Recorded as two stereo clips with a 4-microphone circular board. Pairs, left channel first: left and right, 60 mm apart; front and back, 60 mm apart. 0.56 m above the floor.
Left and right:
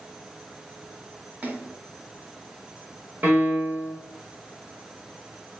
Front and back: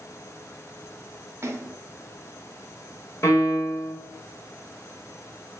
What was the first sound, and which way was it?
A splash, 145° right.